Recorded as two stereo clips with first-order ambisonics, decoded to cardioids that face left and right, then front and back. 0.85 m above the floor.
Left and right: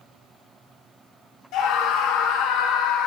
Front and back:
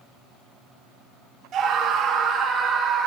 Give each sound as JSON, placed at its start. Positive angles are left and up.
{"t": 1.5, "sound": "a scream", "azimuth_deg": 125, "distance_m": 2.0}